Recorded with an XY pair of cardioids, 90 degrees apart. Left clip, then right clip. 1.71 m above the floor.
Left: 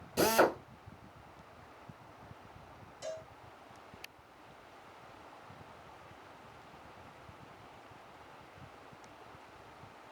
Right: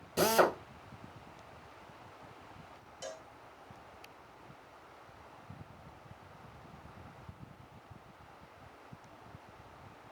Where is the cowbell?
40° right, 1.3 m.